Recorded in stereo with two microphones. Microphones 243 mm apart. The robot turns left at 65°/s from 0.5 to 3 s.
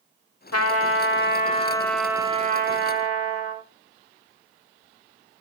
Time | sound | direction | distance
0.5 | a trumpet | 95° left | 0.6 m